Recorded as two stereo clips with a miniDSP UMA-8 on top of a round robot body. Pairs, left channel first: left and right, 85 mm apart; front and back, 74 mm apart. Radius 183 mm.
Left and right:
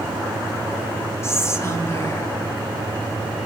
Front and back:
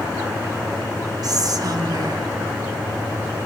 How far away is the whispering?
About 2.0 m.